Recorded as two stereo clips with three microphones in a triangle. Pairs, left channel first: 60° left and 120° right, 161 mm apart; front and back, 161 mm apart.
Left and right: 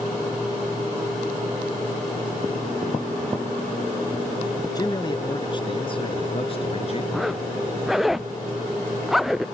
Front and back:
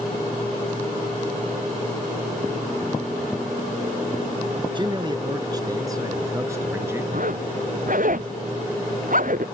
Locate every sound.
4.8 s a man speaking: 120° left; by 7.0 s 105° left
7.1 s a zipper: 150° left